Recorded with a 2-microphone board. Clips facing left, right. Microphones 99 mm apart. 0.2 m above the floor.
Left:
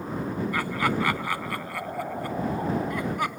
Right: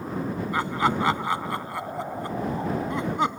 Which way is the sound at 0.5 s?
25° right (ahead or behind).